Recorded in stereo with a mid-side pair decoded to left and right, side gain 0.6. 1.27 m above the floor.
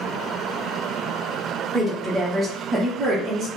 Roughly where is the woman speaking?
Ahead.